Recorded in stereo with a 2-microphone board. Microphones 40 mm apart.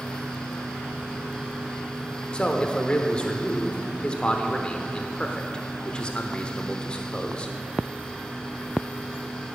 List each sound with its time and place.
2.3 s a man speaking: 25° left (ahead or behind), 0.8 m